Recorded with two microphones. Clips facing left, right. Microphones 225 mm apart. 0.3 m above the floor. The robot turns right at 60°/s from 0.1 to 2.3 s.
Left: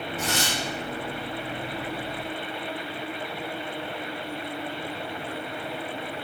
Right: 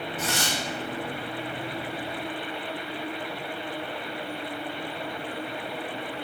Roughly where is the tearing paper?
Centre.